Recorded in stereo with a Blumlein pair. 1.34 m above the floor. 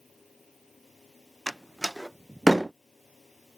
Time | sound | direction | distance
0.0 | a fan | 15° left | ?
1.5 | a door slam | straight ahead | ?